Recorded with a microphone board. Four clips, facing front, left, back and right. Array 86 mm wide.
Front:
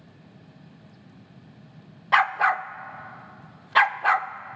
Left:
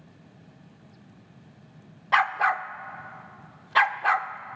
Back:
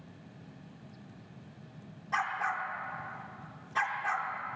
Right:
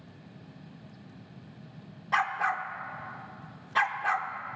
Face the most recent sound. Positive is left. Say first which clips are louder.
# left 5 dB, front 12 dB
turn(degrees=30)